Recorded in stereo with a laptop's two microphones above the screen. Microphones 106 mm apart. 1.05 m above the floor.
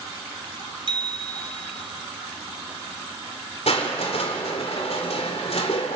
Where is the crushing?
75° left (ahead or behind), 3 m.